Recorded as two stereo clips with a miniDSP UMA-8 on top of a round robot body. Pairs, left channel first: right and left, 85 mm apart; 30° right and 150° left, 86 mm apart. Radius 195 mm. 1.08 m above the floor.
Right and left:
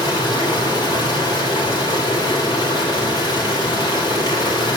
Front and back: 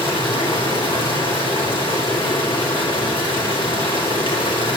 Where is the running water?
50° right, 5 m.